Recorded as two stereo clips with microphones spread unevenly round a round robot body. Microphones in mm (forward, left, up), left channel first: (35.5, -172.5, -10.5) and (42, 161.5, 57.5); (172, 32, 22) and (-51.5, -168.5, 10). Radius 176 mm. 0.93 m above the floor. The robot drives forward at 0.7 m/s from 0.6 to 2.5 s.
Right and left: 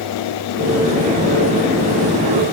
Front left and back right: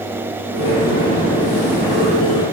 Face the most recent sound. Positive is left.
No sound to turn to.